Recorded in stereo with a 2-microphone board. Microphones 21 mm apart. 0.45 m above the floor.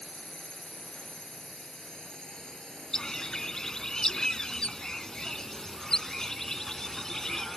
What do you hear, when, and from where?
0.0 s a drone: 45° left (ahead or behind); by 7.6 s 25° left (ahead or behind)
2.9 s a bird: 35° left (ahead or behind)